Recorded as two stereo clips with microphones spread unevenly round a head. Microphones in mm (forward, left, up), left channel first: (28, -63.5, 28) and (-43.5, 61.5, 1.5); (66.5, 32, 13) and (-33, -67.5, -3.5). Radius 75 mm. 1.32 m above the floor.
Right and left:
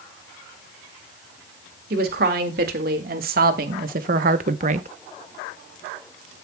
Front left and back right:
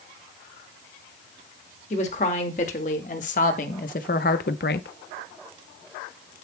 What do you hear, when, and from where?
1.9 s a woman speaking: 95° left, 2 m; by 4.9 s 70° left, 0.6 m